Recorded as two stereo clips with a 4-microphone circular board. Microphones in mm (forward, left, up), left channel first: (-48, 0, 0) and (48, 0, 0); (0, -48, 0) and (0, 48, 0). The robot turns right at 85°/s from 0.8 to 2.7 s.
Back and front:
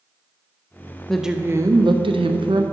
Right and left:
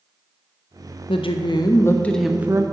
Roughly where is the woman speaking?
Right.